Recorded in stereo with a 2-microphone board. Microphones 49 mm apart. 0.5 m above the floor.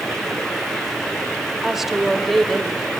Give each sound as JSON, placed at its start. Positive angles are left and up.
{"t": 1.6, "sound": "a woman speaking", "side_deg": -10, "distance_m": 1.8}